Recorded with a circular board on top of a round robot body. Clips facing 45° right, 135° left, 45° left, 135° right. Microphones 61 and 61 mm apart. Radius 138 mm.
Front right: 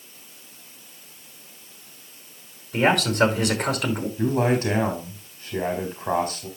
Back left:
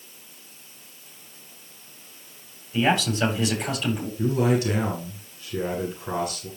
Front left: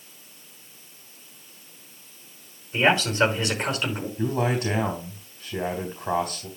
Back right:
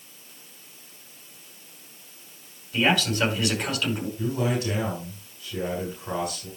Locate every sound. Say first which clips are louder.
2.7 s a man speaking: front right 3 dB, front left 2 dB; 20° right, 5 m
4.2 s a man speaking: front right 1 dB, front left 4 dB; 5° right, 3.5 m